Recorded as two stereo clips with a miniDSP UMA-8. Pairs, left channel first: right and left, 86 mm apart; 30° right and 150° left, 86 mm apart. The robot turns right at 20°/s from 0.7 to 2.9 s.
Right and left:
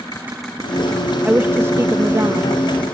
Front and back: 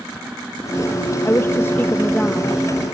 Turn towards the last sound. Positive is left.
turn(degrees=55)